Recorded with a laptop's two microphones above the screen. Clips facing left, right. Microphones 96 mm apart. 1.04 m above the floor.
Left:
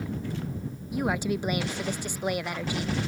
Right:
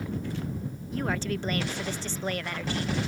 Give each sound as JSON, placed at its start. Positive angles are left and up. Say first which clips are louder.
{"t": 0.9, "sound": "a woman speaking", "louder": "left 3 dB", "side_deg": 15}